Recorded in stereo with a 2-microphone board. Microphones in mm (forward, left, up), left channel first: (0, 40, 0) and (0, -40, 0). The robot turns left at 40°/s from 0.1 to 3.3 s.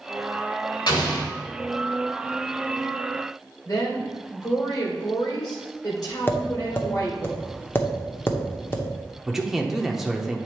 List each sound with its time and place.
0.9 s an explosion: 65° left (ahead or behind), 1.9 m; by 1.3 s 60° left (ahead or behind), 1.9 m
3.6 s a woman speaking: 50° left (ahead or behind), 1.8 m
6.3 s tapping: 30° left (ahead or behind), 0.9 m
9.3 s a man speaking: 5° right (ahead or behind), 0.8 m